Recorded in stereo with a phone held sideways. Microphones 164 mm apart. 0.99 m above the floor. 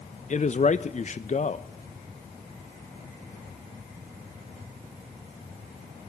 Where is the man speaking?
50° left (ahead or behind), 0.6 m.